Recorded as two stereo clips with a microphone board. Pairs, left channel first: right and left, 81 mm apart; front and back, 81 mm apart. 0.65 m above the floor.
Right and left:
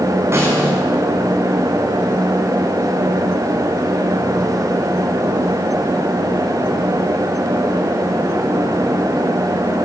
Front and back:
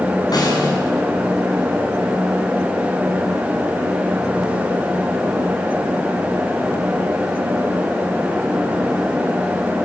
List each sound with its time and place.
0.3 s a snare drum: 35° left, 7 m